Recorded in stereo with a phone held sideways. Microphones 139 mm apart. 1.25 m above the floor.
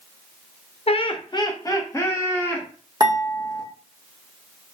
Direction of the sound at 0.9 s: 45° left (ahead or behind).